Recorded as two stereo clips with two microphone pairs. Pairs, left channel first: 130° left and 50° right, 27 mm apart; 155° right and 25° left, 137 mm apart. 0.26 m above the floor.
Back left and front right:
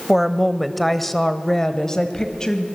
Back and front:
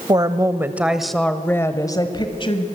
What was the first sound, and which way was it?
A woman speaking, 25° left.